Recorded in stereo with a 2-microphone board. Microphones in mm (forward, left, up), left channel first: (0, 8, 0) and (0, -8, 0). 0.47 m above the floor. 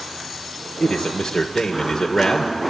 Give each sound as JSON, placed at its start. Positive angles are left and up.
{"t": 0.8, "sound": "a man speaking", "side_deg": 30, "distance_m": 1.4}